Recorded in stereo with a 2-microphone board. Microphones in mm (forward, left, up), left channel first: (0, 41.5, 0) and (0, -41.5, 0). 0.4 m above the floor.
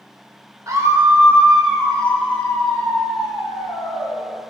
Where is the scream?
40° right (ahead or behind), 1.0 m; by 4.2 s 55° left (ahead or behind), 1.9 m.